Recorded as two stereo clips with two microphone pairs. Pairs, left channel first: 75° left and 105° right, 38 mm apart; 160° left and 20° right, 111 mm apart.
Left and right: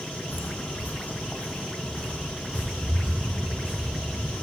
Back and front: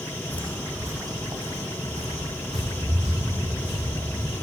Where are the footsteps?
95° left, 0.6 m; by 4.5 s 5° right, 4 m.